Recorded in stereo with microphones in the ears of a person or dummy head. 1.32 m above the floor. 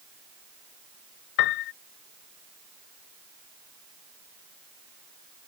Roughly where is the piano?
Left.